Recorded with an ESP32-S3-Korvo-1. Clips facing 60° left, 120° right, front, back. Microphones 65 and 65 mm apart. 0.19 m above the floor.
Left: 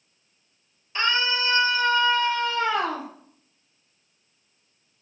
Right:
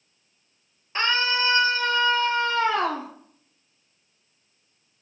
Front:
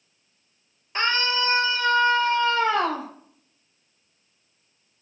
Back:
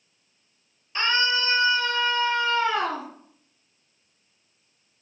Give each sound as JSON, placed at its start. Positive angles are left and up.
{"t": 0.9, "sound": "a scream", "azimuth_deg": -60, "distance_m": 4.5}